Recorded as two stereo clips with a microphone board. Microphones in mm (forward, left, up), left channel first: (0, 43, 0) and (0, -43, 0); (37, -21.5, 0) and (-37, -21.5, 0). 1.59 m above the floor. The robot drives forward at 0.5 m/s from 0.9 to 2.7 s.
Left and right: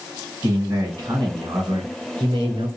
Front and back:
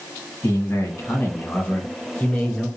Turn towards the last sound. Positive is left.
turn(degrees=-85)